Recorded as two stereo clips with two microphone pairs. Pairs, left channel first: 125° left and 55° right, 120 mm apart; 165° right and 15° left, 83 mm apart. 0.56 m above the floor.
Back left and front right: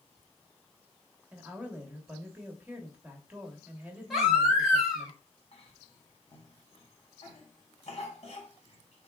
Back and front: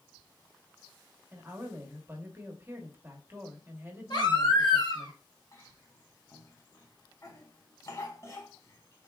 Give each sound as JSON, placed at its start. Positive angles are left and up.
{"t": 1.3, "sound": "a woman speaking", "azimuth_deg": 10, "distance_m": 1.0}
{"t": 4.1, "sound": "a baby crying", "azimuth_deg": -140, "distance_m": 1.4}
{"t": 5.5, "sound": "a cough", "azimuth_deg": 155, "distance_m": 1.0}